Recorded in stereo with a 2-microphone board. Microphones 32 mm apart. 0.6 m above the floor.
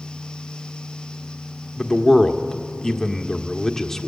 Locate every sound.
1.8 s a man speaking: 10° left (ahead or behind), 1.4 m